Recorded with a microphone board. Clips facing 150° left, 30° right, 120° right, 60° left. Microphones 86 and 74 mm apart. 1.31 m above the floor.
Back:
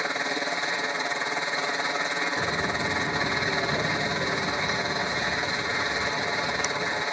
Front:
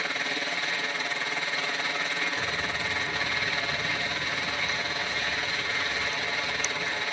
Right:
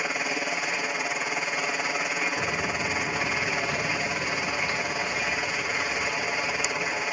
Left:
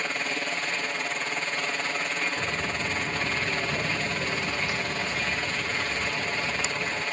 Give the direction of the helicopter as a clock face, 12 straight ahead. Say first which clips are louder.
Back 3 dB, right 2 dB; 6 o'clock.